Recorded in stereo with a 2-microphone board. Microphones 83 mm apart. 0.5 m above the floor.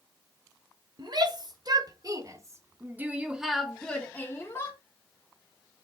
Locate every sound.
1.0 s a shout: 60° right (ahead or behind), 1.9 m; by 4.8 s 35° left (ahead or behind), 1.3 m